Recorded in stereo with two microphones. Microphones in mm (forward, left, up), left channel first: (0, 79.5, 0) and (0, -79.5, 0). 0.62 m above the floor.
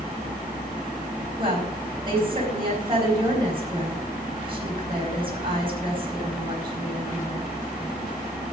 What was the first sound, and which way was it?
A woman speaking, 35° right (ahead or behind).